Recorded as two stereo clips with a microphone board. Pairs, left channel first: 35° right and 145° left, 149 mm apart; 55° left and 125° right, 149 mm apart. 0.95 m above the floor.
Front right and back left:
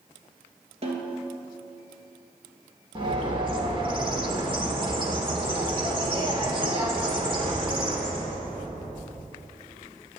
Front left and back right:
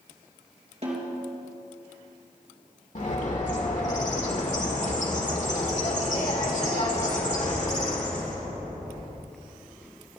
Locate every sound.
0.8 s a snare drum: 170° right, 3 m
3.0 s a bird: 90° left, 2 m